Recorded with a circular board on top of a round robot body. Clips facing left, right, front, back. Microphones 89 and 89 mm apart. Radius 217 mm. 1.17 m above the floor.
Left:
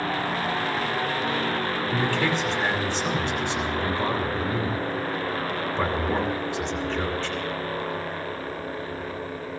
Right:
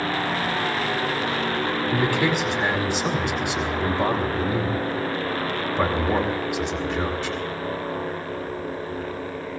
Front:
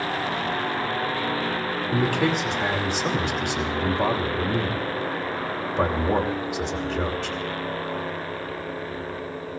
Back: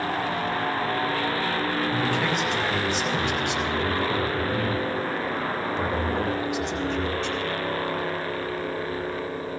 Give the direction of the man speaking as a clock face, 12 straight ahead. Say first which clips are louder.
Right 2 dB, front 2 dB; 12 o'clock.